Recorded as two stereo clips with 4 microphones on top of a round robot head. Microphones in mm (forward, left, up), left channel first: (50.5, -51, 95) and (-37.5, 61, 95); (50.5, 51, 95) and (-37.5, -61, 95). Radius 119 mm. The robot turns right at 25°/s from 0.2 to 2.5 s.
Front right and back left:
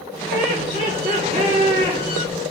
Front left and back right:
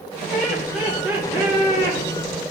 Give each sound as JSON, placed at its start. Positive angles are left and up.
{"t": 0.3, "sound": "laughter", "azimuth_deg": 135, "distance_m": 2.5}